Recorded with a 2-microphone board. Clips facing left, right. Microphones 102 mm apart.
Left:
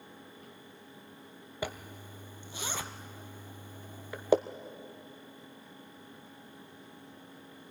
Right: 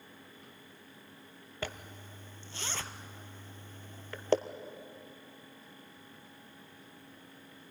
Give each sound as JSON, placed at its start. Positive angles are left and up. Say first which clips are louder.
{"t": 1.6, "sound": "a zipper", "louder": "left 3 dB", "side_deg": 10, "distance_m": 0.8}